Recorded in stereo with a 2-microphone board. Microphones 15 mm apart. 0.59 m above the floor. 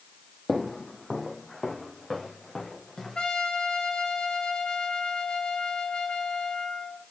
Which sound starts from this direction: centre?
Footsteps, at 0.5 s.